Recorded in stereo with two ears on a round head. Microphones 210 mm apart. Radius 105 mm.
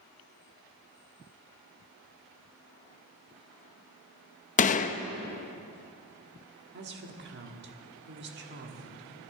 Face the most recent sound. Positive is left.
turn(degrees=-45)  # may be behind; listen again after turning